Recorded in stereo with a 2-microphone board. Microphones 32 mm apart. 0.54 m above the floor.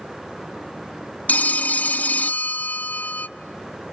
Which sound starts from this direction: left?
A phone ringing, at 1.3 s.